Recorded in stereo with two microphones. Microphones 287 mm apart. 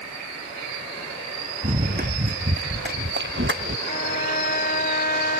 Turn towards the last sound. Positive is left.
turn(degrees=30)  # may be behind; listen again after turning